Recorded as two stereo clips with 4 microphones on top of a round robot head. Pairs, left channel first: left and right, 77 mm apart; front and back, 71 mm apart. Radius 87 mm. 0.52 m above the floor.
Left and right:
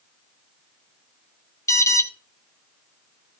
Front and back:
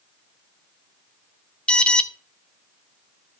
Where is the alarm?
70° left, 1.6 m.